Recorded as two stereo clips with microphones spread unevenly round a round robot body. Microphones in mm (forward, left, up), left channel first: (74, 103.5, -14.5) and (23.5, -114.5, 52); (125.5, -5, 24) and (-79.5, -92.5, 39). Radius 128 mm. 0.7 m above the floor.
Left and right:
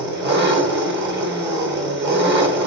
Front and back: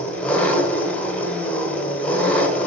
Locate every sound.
0.0 s an engine running: 65° right, 1.1 m